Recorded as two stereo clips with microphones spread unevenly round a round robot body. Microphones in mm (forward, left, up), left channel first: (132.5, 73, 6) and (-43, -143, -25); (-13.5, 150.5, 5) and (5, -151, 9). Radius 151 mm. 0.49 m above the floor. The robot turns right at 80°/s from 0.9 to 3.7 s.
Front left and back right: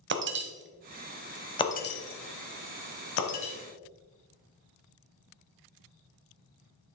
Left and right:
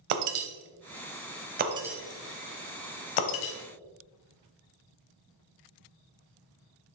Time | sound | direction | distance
0.1 | breaking glass | 80° right | 1.2 m